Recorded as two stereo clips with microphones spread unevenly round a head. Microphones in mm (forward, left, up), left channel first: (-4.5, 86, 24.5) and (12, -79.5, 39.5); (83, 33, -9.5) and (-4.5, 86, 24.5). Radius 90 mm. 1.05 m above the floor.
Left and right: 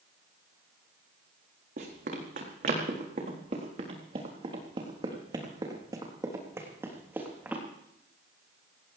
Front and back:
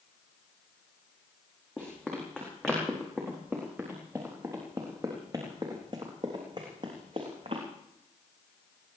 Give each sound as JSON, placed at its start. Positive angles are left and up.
{"t": 1.8, "sound": "running footsteps", "azimuth_deg": -120, "distance_m": 4.5}